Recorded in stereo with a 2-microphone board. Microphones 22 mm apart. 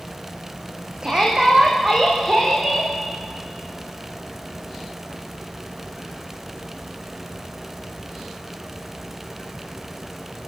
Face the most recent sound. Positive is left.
turn(degrees=-40)  # may be behind; listen again after turning